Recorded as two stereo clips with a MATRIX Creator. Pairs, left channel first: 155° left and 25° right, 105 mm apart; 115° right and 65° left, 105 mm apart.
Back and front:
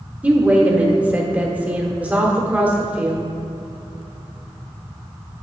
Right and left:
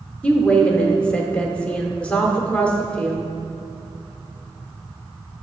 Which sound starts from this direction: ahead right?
A woman speaking, at 0.2 s.